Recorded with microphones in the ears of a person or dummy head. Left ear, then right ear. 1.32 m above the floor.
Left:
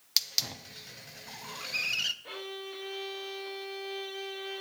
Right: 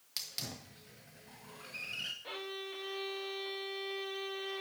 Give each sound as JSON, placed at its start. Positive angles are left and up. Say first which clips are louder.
{"t": 0.2, "sound": "a hiss", "louder": "left 12 dB", "side_deg": 35, "distance_m": 0.8}
{"t": 2.2, "sound": "a violin", "louder": "left 2 dB", "side_deg": -10, "distance_m": 0.6}